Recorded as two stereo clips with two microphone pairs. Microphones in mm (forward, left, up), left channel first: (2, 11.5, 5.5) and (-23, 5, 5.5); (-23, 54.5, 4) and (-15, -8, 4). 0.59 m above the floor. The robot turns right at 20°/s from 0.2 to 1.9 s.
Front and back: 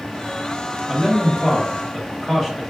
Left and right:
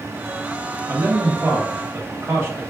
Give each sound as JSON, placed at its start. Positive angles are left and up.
{"t": 0.9, "sound": "a man speaking", "azimuth_deg": -85, "distance_m": 1.3}